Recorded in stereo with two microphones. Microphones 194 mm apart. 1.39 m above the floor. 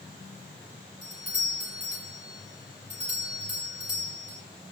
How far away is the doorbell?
About 7 m.